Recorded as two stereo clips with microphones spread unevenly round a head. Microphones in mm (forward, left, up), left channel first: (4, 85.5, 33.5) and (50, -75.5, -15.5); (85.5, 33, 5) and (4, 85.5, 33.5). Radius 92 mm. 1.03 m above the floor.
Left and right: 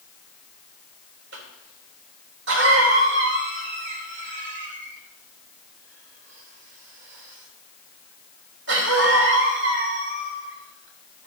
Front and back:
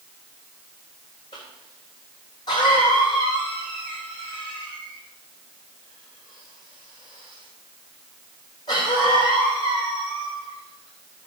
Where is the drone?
No drone in this recording.